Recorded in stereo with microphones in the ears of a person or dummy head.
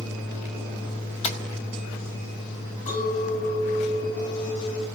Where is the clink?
35° left (ahead or behind), 7.5 m.